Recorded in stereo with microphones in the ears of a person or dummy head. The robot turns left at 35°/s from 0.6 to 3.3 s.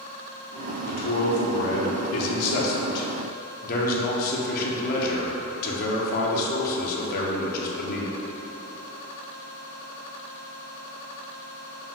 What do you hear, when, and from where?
0.8 s a man speaking: 140° left, 0.7 m; by 8.1 s 55° left, 0.7 m